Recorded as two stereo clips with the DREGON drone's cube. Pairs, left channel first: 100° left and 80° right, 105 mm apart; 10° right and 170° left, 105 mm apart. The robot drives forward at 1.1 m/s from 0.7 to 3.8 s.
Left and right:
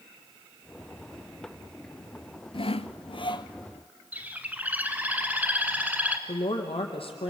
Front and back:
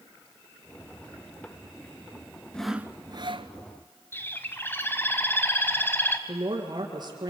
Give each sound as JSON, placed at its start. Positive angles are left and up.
{"t": 2.5, "sound": "sawing", "azimuth_deg": 70, "distance_m": 0.7}
{"t": 4.1, "sound": "a bird", "azimuth_deg": -35, "distance_m": 1.5}
{"t": 6.3, "sound": "a woman speaking", "azimuth_deg": 125, "distance_m": 3.5}